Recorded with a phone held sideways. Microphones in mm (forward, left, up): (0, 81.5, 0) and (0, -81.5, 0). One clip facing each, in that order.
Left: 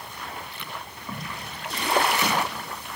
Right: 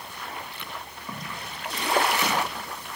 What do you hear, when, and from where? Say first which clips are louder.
1.1 s footsteps: left 1 dB; 10° right (ahead or behind), 6.5 m; by 2.5 s centre (ahead or behind), 7 m